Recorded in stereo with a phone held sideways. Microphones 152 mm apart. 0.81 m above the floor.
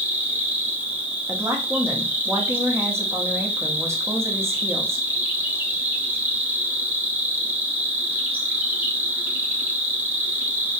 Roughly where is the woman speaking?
Centre.